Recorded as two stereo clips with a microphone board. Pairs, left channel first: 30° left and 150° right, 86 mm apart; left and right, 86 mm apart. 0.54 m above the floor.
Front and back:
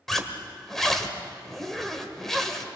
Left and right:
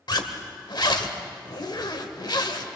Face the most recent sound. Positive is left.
turn(degrees=115)